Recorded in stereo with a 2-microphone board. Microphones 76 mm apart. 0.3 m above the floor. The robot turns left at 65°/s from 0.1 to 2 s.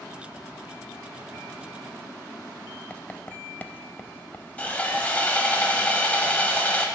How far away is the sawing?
About 1.1 m.